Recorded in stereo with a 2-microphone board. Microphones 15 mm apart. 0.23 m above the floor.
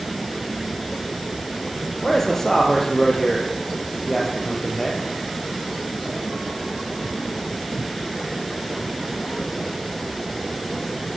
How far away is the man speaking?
About 6 m.